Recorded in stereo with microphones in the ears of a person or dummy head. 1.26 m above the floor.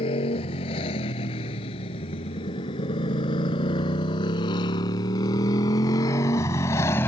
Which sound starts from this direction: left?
A motorcycle, at 0.0 s.